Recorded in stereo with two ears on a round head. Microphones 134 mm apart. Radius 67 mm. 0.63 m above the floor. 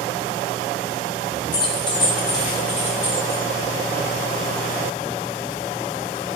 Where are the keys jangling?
30° left (ahead or behind), 0.6 m; by 3.4 s 15° left (ahead or behind), 1.8 m.